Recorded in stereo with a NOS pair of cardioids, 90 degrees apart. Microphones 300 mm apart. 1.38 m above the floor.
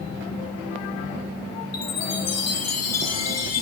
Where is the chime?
60° left, 1.1 m.